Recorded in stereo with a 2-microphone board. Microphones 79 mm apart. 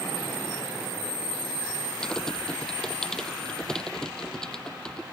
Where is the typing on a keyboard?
10° left (ahead or behind).